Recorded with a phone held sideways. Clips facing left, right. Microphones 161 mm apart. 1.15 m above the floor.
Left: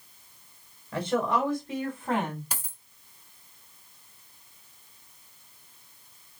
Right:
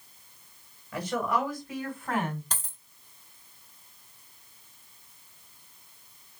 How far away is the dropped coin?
About 1.9 m.